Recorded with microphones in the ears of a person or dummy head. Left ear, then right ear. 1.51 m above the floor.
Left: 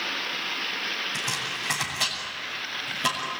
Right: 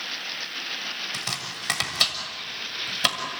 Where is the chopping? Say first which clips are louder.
Left 2 dB; 40° right (ahead or behind), 6 m.